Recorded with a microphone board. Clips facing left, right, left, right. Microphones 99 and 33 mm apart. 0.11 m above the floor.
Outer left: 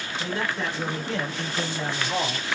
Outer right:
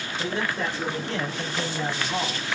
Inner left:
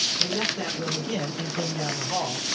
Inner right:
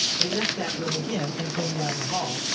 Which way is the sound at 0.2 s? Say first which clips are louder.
Outer right 1 dB, inner right 1 dB; 25° right (ahead or behind).